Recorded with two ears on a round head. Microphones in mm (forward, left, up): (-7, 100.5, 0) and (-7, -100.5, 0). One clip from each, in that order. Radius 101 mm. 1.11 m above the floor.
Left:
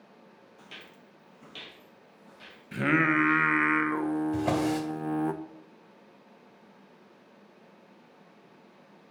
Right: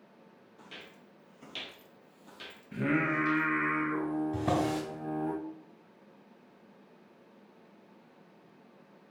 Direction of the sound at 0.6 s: 20° left (ahead or behind).